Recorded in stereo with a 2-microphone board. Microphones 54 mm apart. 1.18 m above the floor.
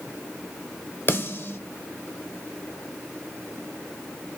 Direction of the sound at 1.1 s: 45° left (ahead or behind).